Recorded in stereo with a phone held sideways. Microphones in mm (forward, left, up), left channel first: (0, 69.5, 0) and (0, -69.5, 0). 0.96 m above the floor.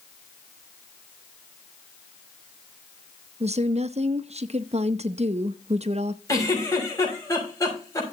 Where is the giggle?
25° left (ahead or behind), 6 m.